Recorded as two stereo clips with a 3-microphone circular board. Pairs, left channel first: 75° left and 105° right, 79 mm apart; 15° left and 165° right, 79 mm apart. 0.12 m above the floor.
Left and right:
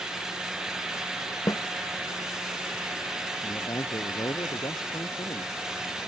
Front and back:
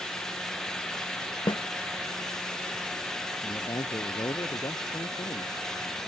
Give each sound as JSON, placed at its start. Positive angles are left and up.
{"t": 1.5, "sound": "a snare drum", "azimuth_deg": 30}
{"t": 3.4, "sound": "a man speaking", "azimuth_deg": 45}